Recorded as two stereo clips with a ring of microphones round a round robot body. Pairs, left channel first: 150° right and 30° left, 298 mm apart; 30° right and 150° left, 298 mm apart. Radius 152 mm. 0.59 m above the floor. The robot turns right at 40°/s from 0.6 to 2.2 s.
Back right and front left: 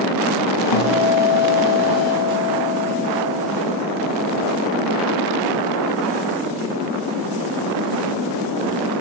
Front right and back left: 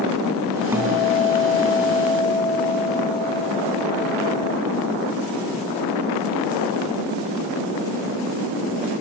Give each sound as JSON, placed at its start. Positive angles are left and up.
{"t": 0.7, "sound": "a guitar", "azimuth_deg": -130, "distance_m": 4.0}